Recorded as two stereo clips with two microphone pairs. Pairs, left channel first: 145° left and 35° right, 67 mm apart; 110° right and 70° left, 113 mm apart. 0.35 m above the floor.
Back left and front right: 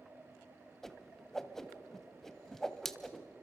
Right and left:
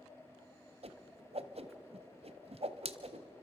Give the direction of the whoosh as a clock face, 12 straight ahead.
10 o'clock.